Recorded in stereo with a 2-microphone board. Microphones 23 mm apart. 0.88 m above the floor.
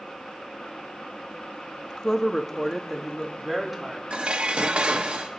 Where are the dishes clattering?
55° right (ahead or behind), 0.9 m.